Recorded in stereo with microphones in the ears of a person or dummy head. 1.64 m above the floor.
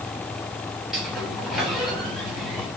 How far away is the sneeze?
No sneeze in this recording.